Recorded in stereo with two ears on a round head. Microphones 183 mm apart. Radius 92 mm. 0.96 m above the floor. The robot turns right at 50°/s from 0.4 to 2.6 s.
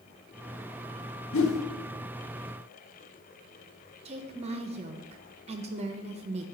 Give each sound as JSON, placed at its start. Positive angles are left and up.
{"t": 1.3, "sound": "a whoosh", "side_deg": 65, "distance_m": 1.0}
{"t": 4.0, "sound": "a woman speaking", "side_deg": -30, "distance_m": 0.7}